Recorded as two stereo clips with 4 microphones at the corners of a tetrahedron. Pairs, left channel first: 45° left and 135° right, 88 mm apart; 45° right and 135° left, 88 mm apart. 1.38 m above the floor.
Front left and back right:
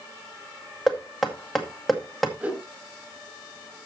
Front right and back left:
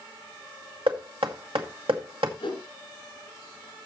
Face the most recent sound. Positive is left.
turn(degrees=-65)